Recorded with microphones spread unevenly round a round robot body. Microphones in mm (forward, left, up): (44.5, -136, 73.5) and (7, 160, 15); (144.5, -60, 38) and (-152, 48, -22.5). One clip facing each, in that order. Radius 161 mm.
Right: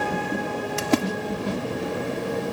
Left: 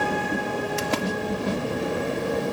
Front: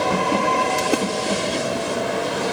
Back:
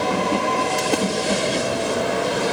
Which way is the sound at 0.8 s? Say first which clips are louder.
Right 5 dB, even; 105° right.